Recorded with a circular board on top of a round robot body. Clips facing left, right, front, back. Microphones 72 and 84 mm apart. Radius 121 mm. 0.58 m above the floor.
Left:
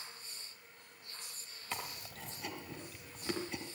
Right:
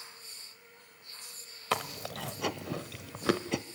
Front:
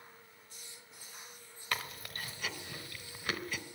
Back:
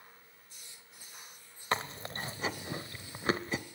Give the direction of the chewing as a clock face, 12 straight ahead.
4 o'clock.